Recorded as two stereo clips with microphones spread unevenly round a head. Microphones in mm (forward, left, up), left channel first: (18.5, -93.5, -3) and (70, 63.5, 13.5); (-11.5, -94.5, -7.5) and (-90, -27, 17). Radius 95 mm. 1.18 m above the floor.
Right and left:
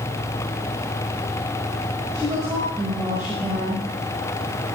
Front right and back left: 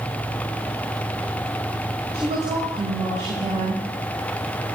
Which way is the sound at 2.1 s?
150° left.